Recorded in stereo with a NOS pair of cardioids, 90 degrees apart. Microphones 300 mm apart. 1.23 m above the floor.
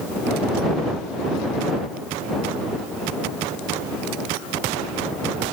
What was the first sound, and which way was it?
Only background noise.